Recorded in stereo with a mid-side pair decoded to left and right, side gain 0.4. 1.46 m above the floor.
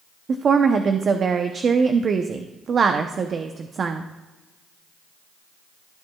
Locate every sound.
0.3 s a woman speaking: 50° right, 0.7 m